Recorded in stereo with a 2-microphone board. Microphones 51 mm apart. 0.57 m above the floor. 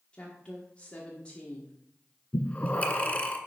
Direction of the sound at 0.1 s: 25° left (ahead or behind).